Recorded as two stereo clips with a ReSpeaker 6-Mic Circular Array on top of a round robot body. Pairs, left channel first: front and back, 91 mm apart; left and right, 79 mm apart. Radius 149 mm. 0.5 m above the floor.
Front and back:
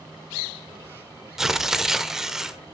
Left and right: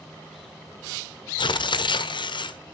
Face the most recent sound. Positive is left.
turn(degrees=95)